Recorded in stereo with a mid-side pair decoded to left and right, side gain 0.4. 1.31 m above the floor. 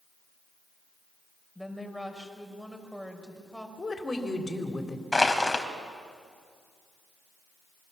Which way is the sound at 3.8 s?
30° left.